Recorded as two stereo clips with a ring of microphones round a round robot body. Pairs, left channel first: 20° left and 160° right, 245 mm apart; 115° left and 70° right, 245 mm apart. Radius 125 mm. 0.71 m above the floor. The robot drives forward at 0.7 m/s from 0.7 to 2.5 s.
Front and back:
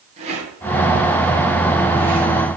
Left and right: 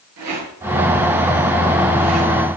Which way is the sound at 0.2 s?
90° right.